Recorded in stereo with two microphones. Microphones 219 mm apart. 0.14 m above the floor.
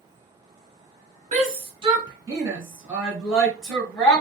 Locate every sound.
1.3 s a shout: 30° right (ahead or behind), 1.5 m; by 4.2 s 10° left (ahead or behind), 2.0 m